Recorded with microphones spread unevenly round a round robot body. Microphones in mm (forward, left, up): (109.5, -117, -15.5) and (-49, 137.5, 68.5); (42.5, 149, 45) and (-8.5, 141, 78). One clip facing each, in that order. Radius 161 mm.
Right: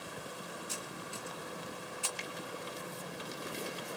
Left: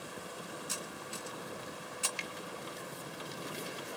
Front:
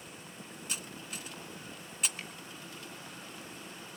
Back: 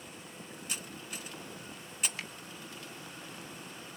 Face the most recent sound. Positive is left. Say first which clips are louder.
# right 1 dB, back 2 dB
turn(degrees=-170)